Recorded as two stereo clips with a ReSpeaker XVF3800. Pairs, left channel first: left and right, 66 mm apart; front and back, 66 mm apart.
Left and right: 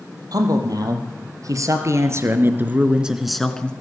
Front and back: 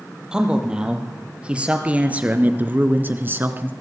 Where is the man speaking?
100° right, 4.5 m; by 3.7 s 150° left, 1.8 m.